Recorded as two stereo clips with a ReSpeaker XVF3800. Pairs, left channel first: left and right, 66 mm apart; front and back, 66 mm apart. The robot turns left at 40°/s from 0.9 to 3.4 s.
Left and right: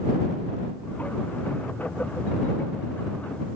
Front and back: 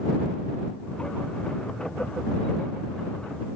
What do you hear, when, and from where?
Only background noise.